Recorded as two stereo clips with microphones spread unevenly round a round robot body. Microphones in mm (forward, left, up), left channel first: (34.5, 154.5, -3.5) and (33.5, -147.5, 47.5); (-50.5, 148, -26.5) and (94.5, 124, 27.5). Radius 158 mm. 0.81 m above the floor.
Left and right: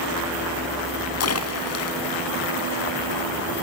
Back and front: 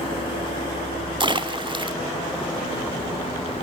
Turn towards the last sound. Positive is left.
turn(degrees=45)